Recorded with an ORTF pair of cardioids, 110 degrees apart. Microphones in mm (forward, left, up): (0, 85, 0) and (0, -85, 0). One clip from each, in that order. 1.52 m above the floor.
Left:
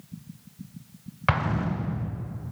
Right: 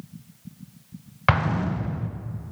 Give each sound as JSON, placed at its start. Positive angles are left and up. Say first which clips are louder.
{"t": 1.3, "sound": "an explosion", "louder": "right 3 dB", "azimuth_deg": -20, "distance_m": 1.2}